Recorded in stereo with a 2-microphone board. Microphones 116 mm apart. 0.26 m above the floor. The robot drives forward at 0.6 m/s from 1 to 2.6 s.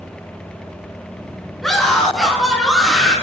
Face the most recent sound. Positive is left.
turn(degrees=0)  # may be behind; listen again after turning